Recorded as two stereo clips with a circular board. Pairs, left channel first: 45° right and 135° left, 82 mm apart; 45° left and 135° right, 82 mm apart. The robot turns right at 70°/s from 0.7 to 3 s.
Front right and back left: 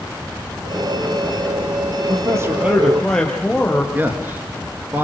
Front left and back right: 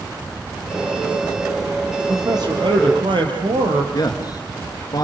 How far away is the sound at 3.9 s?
About 3 m.